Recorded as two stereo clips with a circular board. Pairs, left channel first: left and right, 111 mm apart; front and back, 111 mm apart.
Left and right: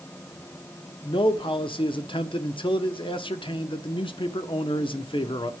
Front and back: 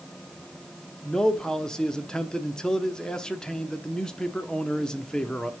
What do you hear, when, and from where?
1.0 s a man speaking: 80° left, 0.9 m